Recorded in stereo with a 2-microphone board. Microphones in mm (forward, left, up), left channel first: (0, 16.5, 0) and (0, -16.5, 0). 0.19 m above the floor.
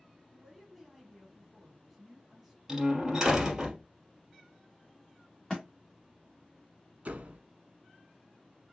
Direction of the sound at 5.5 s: 10° left (ahead or behind).